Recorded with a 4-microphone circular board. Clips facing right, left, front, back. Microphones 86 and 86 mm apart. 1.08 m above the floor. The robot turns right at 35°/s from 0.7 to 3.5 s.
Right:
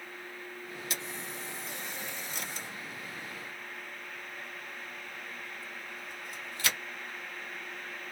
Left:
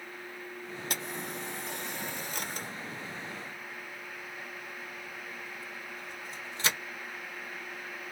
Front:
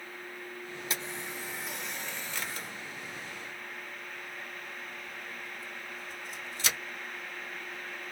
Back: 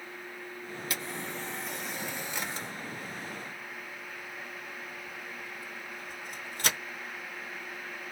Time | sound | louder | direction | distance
0.9 | a camera shutter | left 4 dB, back 1 dB | 60° left | 1.2 m